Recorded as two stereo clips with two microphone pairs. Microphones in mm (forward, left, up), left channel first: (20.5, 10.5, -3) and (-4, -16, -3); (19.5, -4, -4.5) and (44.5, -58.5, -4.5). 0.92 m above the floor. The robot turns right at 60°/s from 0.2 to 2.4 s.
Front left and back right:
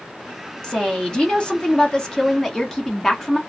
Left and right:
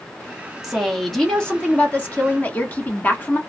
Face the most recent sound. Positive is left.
turn(degrees=110)